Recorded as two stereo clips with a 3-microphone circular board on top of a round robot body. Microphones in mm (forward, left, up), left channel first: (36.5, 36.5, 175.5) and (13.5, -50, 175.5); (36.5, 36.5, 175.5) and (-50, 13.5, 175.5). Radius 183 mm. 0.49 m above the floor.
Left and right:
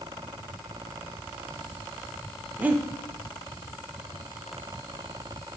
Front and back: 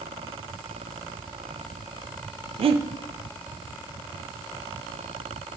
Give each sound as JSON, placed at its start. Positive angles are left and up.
{"t": 2.6, "sound": "breathing", "azimuth_deg": 180, "distance_m": 0.7}